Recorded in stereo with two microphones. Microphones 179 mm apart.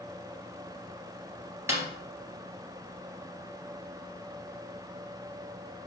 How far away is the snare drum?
About 2.5 m.